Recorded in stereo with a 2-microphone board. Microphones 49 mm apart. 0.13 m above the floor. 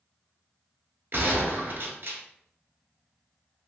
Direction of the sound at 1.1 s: 50° right (ahead or behind).